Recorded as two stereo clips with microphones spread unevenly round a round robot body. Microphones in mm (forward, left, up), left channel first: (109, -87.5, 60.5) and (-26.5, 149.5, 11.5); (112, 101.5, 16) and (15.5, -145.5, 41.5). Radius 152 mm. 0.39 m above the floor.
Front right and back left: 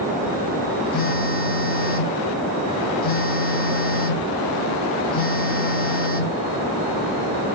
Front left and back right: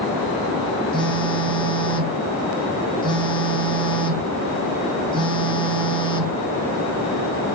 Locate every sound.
0.9 s a phone buzzing: straight ahead, 0.8 m